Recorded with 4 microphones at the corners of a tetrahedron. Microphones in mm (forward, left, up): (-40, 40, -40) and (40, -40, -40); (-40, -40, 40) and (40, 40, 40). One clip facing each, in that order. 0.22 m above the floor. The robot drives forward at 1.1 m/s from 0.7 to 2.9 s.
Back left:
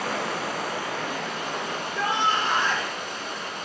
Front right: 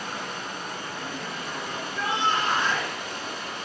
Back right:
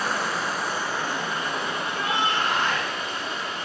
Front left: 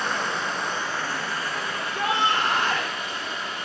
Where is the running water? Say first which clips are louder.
Back left 6 dB, back right 1 dB; 140° left, 1.6 m; by 3.6 s 165° left, 4 m.